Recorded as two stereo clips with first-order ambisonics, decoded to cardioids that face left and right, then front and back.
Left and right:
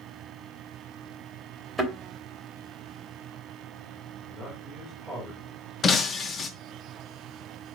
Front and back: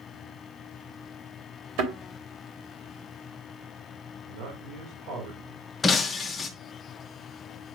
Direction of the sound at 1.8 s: 175° right.